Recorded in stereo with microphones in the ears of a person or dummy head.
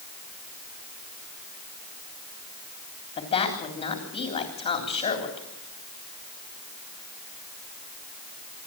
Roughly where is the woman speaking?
Left.